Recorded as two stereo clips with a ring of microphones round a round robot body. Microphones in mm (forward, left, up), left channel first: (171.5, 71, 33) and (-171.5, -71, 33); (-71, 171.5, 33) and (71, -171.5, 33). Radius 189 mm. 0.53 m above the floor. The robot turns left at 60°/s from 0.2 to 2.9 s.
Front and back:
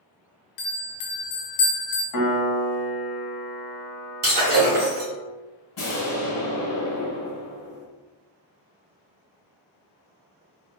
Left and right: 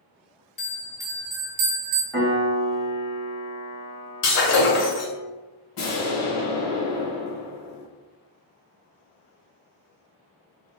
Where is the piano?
30° left, 1.3 m; by 5.2 s 20° right, 1.3 m.